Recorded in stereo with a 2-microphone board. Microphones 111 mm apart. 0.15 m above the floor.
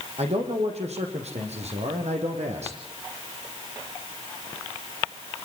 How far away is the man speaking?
About 7.5 m.